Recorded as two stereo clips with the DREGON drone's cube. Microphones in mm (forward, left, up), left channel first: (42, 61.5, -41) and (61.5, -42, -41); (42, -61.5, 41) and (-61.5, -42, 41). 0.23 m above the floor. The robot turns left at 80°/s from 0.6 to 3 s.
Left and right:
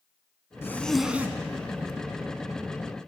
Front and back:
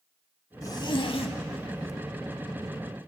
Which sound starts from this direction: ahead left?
A zipper, at 0.6 s.